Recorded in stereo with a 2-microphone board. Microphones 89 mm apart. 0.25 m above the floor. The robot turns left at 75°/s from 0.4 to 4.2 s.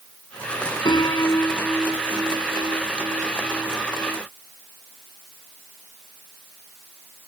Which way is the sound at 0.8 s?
70° left.